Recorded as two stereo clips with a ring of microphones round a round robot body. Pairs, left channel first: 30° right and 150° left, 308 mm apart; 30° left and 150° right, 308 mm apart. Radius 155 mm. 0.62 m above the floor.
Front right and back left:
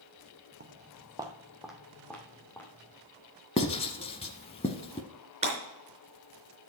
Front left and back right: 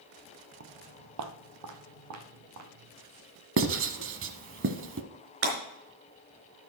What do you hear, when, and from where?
0.6 s footsteps: 170° right, 0.7 m; by 2.9 s 110° right, 2.5 m
3.6 s writing: 100° right, 0.9 m
5.4 s breaking glass: 140° right, 4 m